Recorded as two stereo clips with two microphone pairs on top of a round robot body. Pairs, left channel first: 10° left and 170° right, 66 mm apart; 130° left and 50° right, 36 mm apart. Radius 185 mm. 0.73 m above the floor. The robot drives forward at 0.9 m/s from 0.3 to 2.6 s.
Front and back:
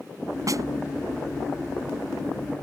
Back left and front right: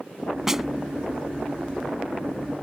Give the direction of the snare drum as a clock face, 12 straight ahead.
4 o'clock.